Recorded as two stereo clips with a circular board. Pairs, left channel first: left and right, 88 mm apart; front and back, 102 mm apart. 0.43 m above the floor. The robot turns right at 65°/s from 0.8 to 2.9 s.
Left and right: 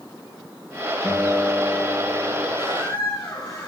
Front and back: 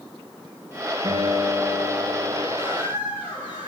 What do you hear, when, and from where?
1.0 s a guitar: 155° left, 3.5 m; by 2.5 s 110° right, 3.5 m
2.6 s a squeak: 90° left, 5 m; by 3.7 s 110° left, 5 m